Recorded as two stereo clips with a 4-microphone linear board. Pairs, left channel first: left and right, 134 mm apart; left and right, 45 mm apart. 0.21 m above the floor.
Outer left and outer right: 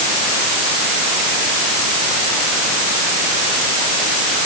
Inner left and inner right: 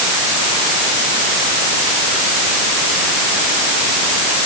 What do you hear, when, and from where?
Only background noise.